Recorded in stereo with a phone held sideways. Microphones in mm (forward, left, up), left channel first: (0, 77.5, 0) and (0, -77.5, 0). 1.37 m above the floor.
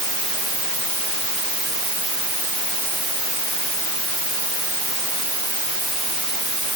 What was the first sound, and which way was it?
Only background noise.